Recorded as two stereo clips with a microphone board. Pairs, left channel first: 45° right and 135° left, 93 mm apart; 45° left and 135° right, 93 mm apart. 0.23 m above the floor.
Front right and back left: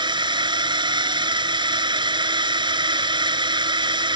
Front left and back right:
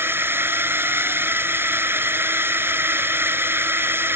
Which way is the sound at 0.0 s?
160° left.